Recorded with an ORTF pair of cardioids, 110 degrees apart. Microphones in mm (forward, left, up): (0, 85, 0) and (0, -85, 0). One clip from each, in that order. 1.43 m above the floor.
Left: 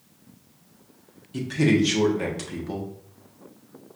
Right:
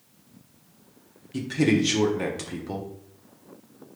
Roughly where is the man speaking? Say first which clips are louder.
Left 1 dB; ahead.